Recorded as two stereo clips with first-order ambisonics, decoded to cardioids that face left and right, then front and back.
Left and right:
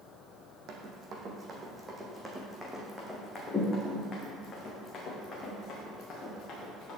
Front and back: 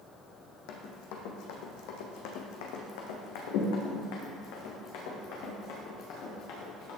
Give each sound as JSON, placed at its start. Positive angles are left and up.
{"t": 0.7, "sound": "running footsteps", "azimuth_deg": -35, "distance_m": 1.7}